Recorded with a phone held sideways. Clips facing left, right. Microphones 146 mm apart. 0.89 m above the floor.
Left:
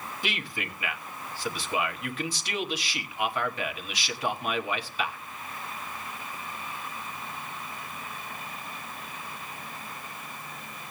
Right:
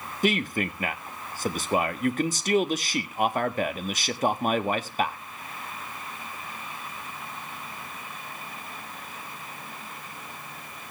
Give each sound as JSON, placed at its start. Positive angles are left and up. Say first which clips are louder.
{"t": 0.2, "sound": "a man speaking", "louder": "right 11 dB", "side_deg": -45, "distance_m": 1.3}